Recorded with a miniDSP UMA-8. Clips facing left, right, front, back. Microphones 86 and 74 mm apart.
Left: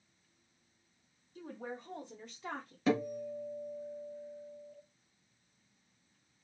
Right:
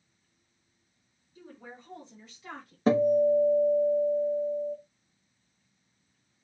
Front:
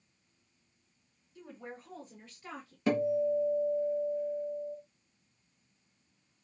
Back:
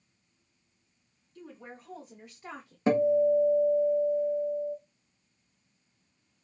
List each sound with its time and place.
1.4 s a woman speaking: 75° left, 1.2 m; by 2.8 s 150° left, 0.7 m
2.9 s a guitar: 125° right, 0.7 m